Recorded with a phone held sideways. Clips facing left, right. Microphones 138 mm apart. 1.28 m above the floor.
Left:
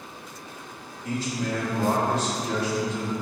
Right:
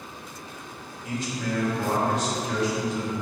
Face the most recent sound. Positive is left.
turn(degrees=35)  # may be behind; listen again after turning